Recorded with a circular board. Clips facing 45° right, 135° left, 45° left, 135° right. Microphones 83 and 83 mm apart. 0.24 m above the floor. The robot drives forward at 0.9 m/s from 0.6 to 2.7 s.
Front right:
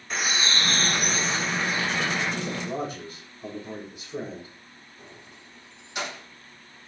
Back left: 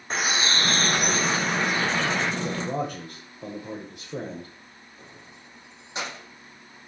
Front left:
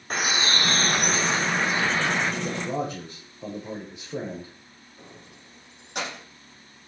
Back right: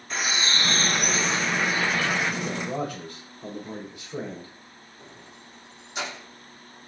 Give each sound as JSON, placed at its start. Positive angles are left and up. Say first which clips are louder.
{"t": 0.1, "sound": "a bird", "louder": "back left 2 dB, front left 2 dB", "azimuth_deg": 85, "distance_m": 3.0}
{"t": 2.4, "sound": "a man speaking", "louder": "back left 2 dB, front left 1 dB", "azimuth_deg": 105, "distance_m": 8.5}
{"t": 5.0, "sound": "keys jangling", "louder": "front right 1 dB, front left 1 dB", "azimuth_deg": 75, "distance_m": 7.0}